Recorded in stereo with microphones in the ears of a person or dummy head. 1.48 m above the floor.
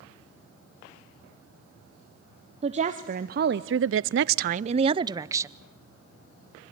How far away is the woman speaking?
About 1.0 m.